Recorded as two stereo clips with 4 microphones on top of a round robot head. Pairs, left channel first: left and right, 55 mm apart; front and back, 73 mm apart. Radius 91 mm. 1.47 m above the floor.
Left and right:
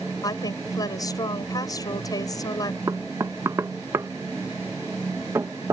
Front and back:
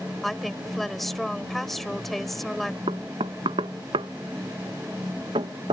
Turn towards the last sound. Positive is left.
turn(degrees=-145)